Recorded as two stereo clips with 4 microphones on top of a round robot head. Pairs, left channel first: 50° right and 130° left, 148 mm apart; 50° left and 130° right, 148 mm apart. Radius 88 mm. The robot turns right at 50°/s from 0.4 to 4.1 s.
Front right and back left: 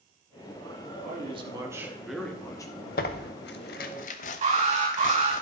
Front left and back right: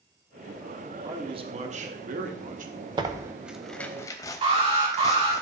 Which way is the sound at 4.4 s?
175° left.